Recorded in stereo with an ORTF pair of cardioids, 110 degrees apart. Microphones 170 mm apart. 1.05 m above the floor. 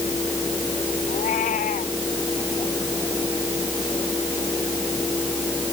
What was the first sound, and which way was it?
A fan, 15° left.